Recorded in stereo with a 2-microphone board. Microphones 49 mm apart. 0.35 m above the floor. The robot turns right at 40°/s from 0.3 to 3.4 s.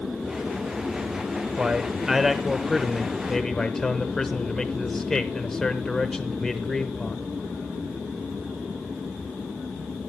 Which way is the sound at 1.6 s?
15° right (ahead or behind).